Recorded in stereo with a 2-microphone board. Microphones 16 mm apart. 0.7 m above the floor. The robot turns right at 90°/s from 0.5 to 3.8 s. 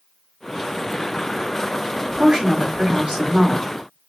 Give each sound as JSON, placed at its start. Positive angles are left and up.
{"t": 2.0, "sound": "a woman speaking", "azimuth_deg": -175, "distance_m": 2.5}